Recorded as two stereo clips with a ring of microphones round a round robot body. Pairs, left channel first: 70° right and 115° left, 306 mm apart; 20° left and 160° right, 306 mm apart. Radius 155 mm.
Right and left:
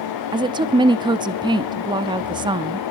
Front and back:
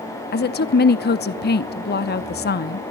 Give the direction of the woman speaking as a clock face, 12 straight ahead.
10 o'clock.